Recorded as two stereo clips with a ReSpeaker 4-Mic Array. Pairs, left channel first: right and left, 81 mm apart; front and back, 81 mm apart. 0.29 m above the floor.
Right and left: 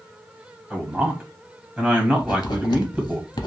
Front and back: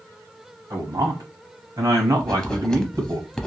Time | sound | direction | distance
0.7 | a man speaking | 160° left | 1.4 m
2.2 | writing | 80° right | 0.5 m